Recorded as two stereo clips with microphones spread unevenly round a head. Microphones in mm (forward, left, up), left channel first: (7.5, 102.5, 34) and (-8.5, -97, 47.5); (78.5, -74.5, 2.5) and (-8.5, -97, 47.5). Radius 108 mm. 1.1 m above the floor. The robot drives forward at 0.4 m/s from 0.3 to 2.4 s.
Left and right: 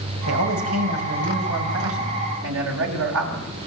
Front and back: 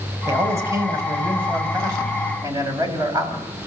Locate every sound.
0.3 s a man speaking: 110° right, 8 m; by 3.5 s 115° right, 8 m